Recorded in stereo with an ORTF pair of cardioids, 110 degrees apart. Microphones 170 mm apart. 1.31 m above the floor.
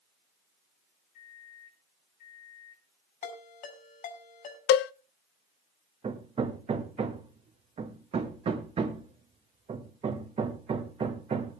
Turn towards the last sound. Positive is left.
turn(degrees=-35)